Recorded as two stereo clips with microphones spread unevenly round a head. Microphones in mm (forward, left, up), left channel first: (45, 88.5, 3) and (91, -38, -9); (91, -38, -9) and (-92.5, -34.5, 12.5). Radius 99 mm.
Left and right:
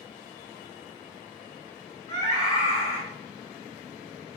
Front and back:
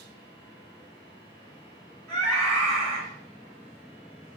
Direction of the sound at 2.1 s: 125° right.